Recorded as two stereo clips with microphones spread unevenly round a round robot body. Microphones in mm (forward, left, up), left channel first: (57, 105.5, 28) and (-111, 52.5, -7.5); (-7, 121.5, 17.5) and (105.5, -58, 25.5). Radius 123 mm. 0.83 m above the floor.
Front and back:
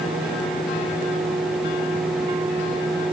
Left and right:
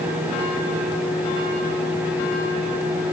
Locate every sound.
Only background noise.